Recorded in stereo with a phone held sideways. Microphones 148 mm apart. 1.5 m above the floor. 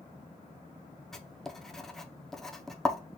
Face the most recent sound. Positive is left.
turn(degrees=0)  # may be behind; listen again after turning